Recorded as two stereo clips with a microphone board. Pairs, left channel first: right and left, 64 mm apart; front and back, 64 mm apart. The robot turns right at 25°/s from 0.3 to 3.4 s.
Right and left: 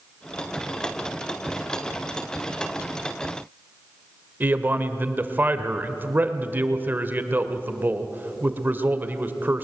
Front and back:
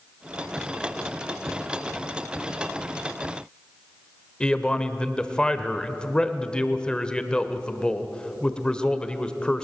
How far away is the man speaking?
About 1.2 m.